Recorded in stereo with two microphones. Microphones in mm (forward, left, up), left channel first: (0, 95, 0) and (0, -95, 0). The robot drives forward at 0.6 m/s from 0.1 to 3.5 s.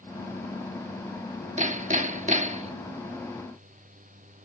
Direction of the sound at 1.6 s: 40° right (ahead or behind).